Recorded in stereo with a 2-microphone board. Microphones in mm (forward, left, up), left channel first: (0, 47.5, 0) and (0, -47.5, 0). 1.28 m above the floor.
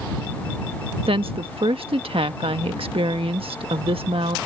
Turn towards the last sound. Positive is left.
turn(degrees=-75)  # may be behind; listen again after turning